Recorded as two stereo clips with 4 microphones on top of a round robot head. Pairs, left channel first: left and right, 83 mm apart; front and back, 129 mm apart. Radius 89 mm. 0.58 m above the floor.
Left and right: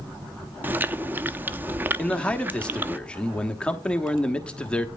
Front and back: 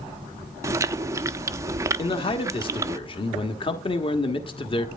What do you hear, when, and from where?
0.6 s chewing: 135° right, 0.6 m
2.0 s a man speaking: 15° left, 1.3 m